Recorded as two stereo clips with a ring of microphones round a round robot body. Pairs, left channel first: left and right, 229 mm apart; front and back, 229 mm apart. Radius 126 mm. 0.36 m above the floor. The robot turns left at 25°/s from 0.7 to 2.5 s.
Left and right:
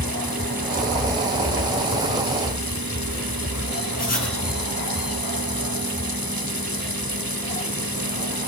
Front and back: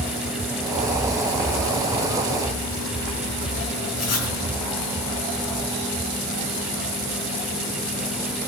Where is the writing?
30° left, 4 m.